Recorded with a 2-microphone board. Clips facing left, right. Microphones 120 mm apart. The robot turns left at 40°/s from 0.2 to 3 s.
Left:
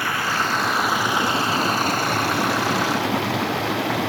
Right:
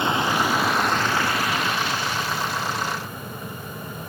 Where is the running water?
160° right; by 4.1 s 90° left.